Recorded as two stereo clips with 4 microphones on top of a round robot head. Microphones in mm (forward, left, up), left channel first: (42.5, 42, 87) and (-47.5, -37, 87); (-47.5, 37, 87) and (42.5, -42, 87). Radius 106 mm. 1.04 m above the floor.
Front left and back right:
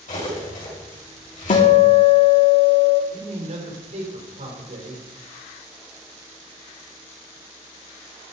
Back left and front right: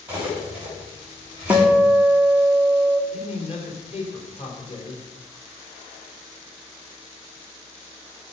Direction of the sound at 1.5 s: 35° left.